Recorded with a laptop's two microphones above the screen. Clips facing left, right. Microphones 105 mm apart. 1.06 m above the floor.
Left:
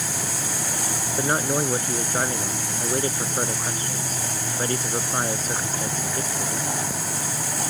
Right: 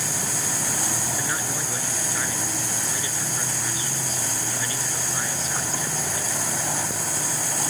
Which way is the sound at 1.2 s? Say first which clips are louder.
Left 7 dB; 45° left (ahead or behind).